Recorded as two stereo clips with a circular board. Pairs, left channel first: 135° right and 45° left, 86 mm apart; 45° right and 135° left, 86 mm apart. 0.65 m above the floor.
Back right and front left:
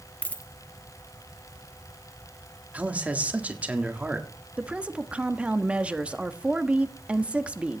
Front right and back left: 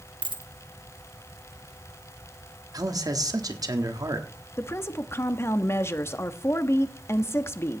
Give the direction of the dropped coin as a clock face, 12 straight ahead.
7 o'clock.